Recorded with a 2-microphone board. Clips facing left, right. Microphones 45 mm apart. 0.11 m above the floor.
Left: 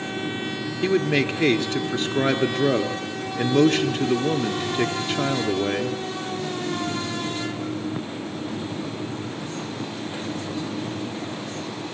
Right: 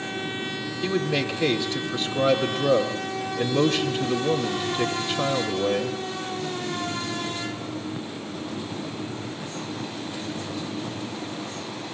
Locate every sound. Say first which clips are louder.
0.8 s a man speaking: left 4 dB; 45° left (ahead or behind), 2.5 m